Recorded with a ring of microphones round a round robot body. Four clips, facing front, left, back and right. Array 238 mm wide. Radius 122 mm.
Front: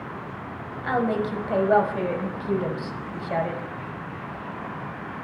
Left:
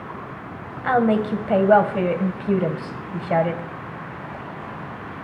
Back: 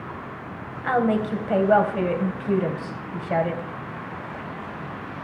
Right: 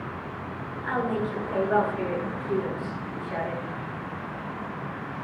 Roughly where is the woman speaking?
Left.